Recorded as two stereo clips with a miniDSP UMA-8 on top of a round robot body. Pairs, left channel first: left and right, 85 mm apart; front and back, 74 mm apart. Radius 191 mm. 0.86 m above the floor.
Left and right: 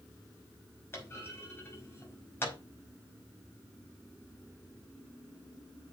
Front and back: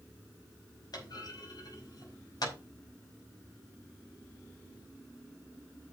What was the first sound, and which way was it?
A clunk, 30° left.